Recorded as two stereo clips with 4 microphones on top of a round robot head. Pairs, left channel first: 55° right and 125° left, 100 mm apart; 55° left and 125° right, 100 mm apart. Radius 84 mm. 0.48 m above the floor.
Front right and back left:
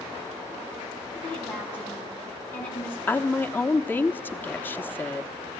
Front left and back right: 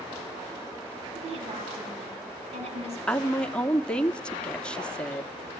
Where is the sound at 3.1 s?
10° right, 1.3 m.